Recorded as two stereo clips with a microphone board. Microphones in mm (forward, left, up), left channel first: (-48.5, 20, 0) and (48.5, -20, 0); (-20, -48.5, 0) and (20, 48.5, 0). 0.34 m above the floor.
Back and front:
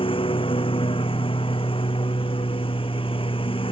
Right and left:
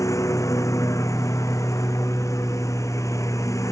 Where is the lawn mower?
170° right.